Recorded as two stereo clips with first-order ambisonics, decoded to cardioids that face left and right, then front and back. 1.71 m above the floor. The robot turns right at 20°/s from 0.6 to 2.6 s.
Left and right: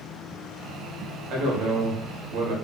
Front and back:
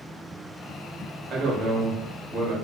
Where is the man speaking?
120° right, 0.9 m; by 2.5 s 95° right, 0.9 m.